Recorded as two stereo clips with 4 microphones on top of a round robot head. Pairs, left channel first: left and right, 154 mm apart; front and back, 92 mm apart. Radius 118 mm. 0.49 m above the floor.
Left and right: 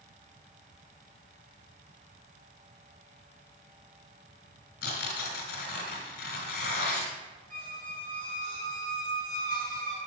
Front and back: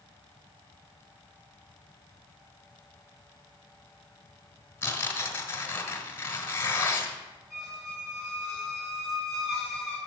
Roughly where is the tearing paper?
Ahead left.